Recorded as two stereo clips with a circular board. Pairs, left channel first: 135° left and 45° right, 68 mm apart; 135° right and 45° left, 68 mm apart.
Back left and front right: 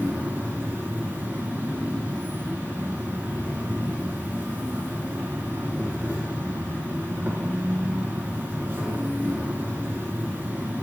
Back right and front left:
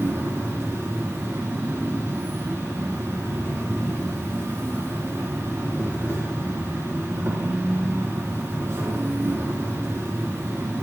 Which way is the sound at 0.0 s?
5° left.